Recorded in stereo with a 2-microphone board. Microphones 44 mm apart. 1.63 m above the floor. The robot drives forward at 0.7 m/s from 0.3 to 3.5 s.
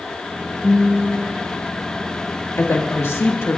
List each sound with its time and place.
0.6 s a guitar: 5° right (ahead or behind), 2.5 m
2.6 s a woman speaking: 75° left (ahead or behind), 2 m